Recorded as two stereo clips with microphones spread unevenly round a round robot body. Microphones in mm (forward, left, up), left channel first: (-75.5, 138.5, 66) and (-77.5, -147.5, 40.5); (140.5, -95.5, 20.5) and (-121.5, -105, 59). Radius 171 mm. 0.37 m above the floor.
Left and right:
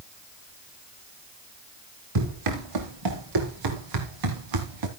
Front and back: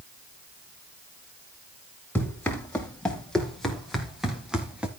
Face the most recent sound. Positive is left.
turn(degrees=-95)